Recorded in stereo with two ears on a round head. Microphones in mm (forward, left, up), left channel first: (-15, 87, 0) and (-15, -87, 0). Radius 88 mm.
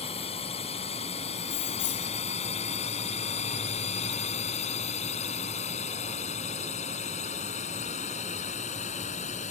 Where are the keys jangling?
60° left (ahead or behind).